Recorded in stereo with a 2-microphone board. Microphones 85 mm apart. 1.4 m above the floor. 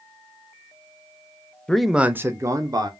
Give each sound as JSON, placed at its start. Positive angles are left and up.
{"t": 1.7, "sound": "a man speaking", "side_deg": 10, "distance_m": 0.5}